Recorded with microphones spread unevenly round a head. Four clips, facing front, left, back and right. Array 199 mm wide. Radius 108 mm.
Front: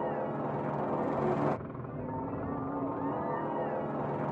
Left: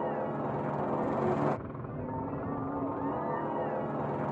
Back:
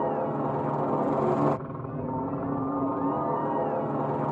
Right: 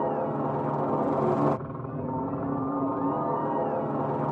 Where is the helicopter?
135° right.